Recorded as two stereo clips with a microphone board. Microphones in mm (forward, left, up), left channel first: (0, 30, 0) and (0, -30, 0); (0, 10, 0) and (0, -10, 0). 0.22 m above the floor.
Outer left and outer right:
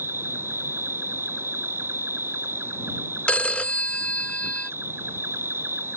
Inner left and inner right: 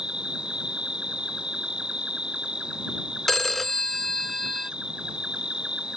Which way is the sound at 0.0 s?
40° right (ahead or behind).